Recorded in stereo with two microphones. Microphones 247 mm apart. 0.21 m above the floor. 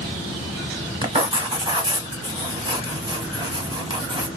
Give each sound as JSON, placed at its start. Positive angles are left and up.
{"t": 1.0, "sound": "writing", "side_deg": -20, "distance_m": 0.9}